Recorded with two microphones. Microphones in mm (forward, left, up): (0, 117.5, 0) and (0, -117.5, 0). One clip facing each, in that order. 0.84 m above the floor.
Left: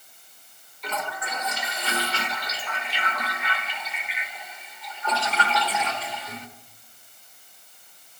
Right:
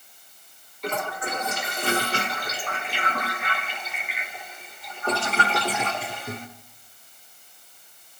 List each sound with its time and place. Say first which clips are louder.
0.8 s a toilet flushing: right 4 dB; 50° right (ahead or behind), 1.5 m